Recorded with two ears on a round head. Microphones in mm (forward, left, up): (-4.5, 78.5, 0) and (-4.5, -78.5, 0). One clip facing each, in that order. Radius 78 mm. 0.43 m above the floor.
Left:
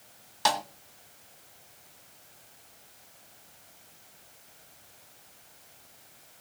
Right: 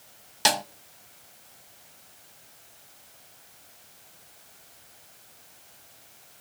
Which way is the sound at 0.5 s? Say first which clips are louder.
Right 1 dB; 25° right (ahead or behind).